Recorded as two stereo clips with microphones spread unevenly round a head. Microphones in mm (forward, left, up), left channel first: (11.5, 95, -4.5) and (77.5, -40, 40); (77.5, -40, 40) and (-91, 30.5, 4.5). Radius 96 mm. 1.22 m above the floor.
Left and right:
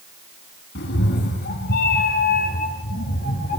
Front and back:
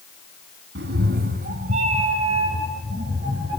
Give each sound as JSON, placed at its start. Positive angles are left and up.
{"t": 0.8, "sound": "a cat meowing", "azimuth_deg": 125, "distance_m": 2.0}